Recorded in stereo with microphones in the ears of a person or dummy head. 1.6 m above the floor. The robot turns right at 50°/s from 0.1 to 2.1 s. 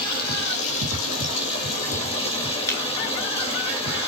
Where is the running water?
45° left, 2.5 m; by 4.1 s 145° left, 2.5 m.